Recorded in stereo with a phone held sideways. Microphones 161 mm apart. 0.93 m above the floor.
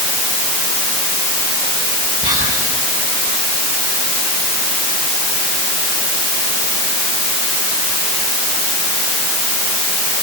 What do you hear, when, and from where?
2.2 s whispering: 55° right (ahead or behind), 7.5 m